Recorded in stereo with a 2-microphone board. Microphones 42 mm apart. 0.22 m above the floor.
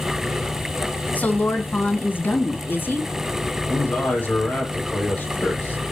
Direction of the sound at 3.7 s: 40° left (ahead or behind).